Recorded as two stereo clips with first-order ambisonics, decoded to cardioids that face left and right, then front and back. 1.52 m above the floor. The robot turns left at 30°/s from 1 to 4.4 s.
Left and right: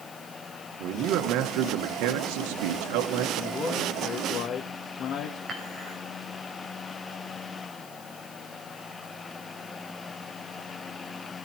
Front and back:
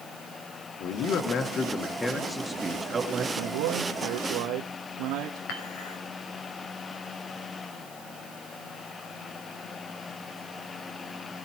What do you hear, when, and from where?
0.8 s a man speaking: 45° right, 1.8 m; by 3.2 s 115° right, 1.8 m
3.4 s a man speaking: 175° left, 1.8 m; by 5.4 s 140° left, 1.8 m
5.5 s dishes clattering: 20° right, 5.5 m